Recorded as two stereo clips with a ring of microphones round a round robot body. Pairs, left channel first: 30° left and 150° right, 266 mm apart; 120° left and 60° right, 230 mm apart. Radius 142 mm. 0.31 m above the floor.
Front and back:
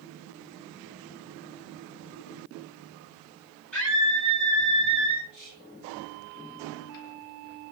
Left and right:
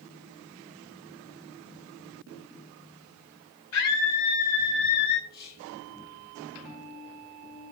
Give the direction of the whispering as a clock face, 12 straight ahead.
10 o'clock.